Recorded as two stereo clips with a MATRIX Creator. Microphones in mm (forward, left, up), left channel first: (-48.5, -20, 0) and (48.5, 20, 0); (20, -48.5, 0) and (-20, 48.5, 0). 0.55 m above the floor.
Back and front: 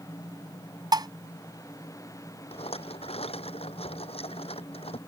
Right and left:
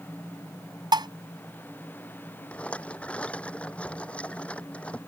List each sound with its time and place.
0.9 s dishes clattering: 70° left
2.5 s a rattle: 145° right